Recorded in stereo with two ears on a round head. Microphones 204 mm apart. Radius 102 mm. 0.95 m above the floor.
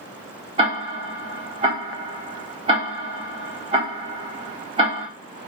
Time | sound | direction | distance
0.6 | ticking | 25° right (ahead or behind) | 1.1 m